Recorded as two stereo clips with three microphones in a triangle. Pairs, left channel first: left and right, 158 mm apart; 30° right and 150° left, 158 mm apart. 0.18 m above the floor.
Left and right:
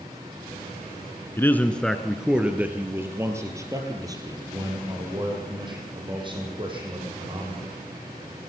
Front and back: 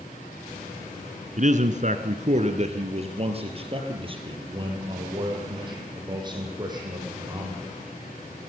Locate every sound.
1.4 s a man speaking: 160° left, 1.8 m; by 7.7 s 145° right, 8 m